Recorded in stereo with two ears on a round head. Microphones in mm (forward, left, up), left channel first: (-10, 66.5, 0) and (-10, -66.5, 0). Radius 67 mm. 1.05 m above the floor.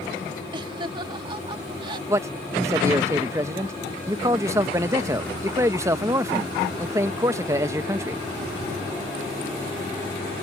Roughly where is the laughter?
Right.